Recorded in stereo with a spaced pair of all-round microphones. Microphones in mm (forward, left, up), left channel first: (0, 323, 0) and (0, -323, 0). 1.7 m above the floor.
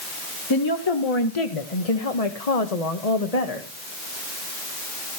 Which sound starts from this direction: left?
A woman speaking, at 0.5 s.